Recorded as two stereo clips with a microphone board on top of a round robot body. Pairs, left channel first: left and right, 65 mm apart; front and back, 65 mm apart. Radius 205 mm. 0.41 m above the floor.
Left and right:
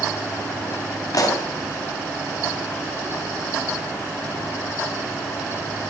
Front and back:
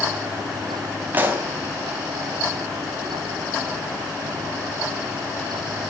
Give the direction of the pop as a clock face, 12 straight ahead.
8 o'clock.